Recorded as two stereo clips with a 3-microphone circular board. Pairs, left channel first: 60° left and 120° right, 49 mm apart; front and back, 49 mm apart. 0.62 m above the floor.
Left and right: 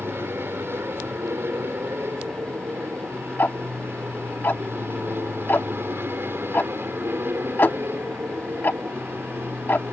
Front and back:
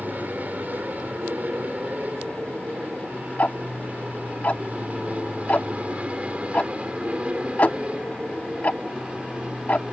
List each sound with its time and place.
0.0 s an aircraft: 135° right; by 9.9 s 115° right
3.4 s ticking: 40° left